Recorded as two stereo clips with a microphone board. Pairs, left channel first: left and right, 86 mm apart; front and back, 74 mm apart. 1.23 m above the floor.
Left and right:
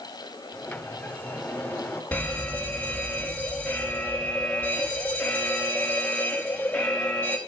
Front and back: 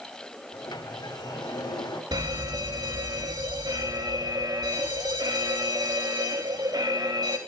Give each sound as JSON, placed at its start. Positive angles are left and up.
{"t": 0.5, "sound": "a sliding door", "azimuth_deg": 20, "distance_m": 2.0}
{"t": 2.1, "sound": "a fire alarm", "azimuth_deg": 165, "distance_m": 4.0}